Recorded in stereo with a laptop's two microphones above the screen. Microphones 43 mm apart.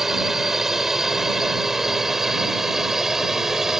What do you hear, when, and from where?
0.0 s a drone: 5° right (ahead or behind); by 3.8 s 10° right (ahead or behind)